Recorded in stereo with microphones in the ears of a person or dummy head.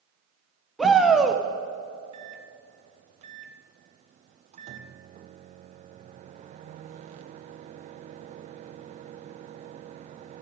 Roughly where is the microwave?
Right.